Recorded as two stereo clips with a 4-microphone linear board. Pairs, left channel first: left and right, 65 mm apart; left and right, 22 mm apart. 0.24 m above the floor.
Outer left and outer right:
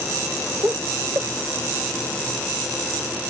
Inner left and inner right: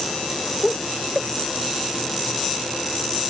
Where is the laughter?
35° right (ahead or behind).